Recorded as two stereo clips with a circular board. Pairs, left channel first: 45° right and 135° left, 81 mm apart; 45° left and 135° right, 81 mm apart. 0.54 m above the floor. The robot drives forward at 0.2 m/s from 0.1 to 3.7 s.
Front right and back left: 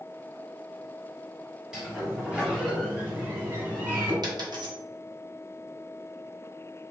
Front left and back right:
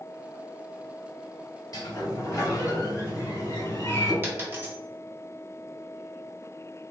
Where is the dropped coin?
165° left, 1.3 m.